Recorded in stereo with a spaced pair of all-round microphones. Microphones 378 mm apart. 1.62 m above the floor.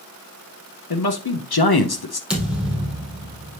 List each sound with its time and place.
0.9 s a man speaking: 75° left (ahead or behind), 0.9 m
2.3 s a thud: 5° right (ahead or behind), 3 m